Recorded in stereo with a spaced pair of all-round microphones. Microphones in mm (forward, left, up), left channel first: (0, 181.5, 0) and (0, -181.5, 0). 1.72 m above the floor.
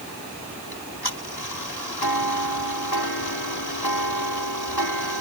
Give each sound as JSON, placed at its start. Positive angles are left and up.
{"t": 0.7, "sound": "ticking", "side_deg": 75}